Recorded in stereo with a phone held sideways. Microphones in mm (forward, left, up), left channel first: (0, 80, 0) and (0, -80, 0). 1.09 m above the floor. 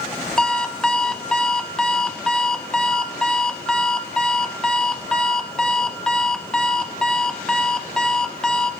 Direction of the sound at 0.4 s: 5° left (ahead or behind).